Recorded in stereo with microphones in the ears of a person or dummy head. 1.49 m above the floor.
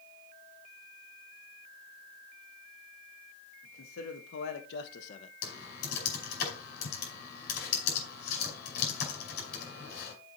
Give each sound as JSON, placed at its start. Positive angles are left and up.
{"t": 3.6, "sound": "a man speaking", "side_deg": 80, "distance_m": 2.0}
{"t": 5.4, "sound": "typing on a keyboard", "side_deg": 55, "distance_m": 5.0}